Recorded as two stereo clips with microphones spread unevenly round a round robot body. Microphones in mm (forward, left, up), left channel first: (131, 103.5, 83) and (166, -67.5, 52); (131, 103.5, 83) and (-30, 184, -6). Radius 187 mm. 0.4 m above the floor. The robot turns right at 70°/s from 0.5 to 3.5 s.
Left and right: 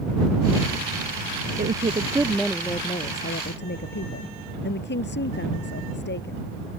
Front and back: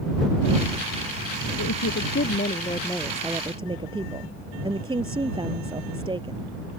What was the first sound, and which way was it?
A woman speaking, 45° right.